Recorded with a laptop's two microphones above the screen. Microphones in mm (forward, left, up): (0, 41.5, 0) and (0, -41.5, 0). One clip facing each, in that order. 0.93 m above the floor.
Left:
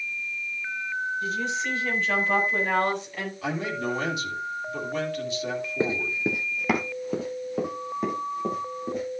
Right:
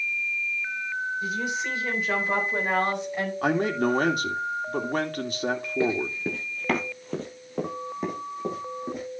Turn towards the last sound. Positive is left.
turn(degrees=0)  # may be behind; listen again after turning